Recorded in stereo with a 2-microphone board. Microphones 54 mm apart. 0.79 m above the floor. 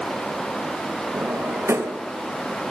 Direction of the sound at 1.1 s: 50° right (ahead or behind).